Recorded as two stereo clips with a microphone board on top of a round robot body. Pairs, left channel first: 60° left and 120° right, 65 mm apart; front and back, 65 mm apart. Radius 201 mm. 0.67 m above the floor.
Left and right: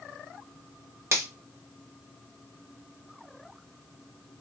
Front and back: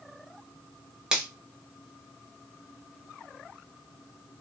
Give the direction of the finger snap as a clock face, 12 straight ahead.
3 o'clock.